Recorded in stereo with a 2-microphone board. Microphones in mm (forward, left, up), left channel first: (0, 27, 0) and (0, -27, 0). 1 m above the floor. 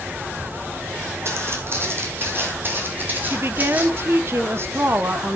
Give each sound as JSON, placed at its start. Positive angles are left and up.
{"t": 1.2, "sound": "footsteps", "side_deg": -50, "distance_m": 3.5}
{"t": 3.3, "sound": "a woman speaking", "side_deg": -50, "distance_m": 1.3}